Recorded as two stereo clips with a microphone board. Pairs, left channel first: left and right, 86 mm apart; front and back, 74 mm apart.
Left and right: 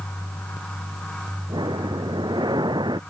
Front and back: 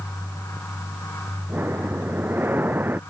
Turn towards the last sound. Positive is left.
turn(degrees=-115)